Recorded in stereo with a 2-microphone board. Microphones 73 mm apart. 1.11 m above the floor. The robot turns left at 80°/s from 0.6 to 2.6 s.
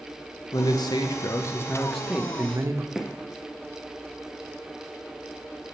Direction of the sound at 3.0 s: 5° right (ahead or behind).